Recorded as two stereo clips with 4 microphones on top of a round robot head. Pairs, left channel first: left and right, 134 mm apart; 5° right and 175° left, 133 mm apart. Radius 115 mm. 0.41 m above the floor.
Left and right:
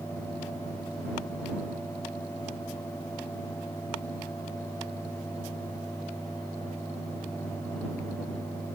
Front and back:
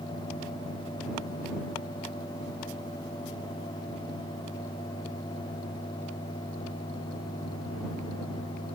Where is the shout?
I don't hear a shout.